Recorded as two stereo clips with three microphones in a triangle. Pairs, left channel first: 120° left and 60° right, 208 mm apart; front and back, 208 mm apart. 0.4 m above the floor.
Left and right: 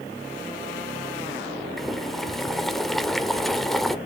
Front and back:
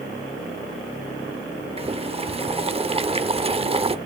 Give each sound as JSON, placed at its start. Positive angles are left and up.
{"t": 1.8, "sound": "boiling", "azimuth_deg": -155, "distance_m": 0.7}